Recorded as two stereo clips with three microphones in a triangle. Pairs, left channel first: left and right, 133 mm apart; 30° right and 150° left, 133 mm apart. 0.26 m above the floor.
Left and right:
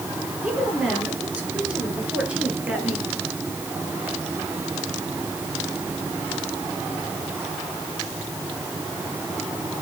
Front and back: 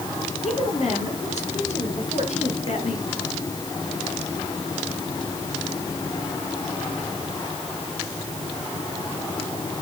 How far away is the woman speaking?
About 7 m.